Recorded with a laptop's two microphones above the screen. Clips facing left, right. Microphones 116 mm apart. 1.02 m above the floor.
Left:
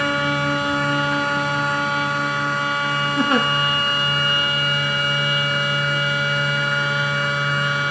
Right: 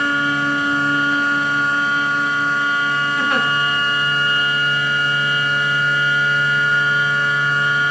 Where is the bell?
No bell in this recording.